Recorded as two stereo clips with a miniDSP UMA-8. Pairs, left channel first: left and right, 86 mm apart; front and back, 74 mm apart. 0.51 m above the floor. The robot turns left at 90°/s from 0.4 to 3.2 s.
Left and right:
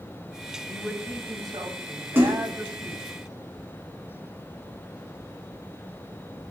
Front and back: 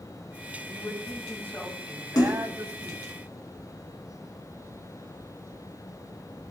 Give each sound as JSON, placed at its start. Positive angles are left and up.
{"t": 0.7, "sound": "a man speaking", "azimuth_deg": 10, "distance_m": 3.5}
{"t": 2.1, "sound": "a splash", "azimuth_deg": -25, "distance_m": 3.0}